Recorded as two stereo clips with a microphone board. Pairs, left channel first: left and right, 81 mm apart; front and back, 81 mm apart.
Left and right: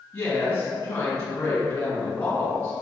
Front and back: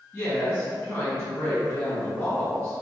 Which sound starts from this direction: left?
A woman speaking, at 0.1 s.